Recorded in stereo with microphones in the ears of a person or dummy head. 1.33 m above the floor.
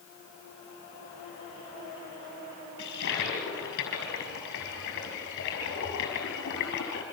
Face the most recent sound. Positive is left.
turn(degrees=65)  # may be behind; listen again after turning